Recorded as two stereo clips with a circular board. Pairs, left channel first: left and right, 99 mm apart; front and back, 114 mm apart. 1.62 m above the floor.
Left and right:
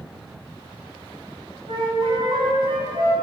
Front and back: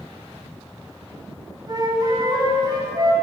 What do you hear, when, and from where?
1.7 s a flute: 125° right, 5.5 m